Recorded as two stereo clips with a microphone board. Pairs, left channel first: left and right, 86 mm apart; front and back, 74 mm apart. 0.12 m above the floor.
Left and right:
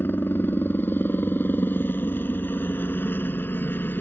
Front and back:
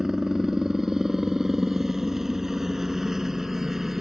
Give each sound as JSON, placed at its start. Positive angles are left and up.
{"t": 0.0, "sound": "a helicopter", "azimuth_deg": 105}